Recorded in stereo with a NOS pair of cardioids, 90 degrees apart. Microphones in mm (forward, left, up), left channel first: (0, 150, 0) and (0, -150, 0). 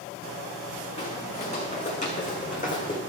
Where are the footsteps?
20° left, 5.5 m; by 3.0 s 25° left, 4 m.